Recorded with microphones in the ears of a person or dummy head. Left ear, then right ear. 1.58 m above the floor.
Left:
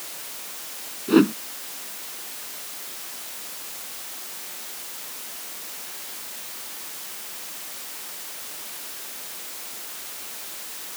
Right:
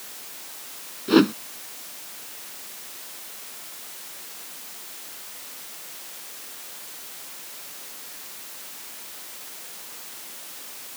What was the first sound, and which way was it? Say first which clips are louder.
A whoosh: even; 35° right (ahead or behind).